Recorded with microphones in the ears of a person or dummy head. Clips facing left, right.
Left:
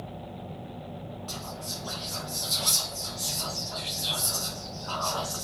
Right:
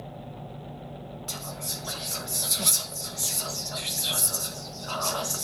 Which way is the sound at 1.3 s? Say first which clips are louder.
Even; 25° right (ahead or behind).